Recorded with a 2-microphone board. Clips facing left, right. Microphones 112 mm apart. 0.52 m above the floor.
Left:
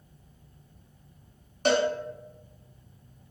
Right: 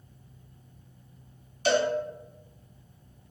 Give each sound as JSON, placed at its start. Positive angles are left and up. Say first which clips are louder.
{"t": 1.6, "sound": "a cowbell", "louder": "left 1 dB", "side_deg": 55, "distance_m": 0.8}